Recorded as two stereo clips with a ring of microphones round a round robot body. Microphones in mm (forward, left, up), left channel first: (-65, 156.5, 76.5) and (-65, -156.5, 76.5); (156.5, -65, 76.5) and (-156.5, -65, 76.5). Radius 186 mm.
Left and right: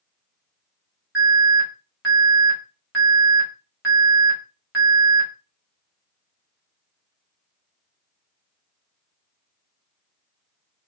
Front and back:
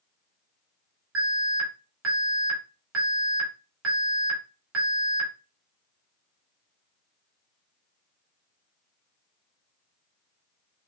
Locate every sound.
1.1 s an alarm: 140° right, 2 m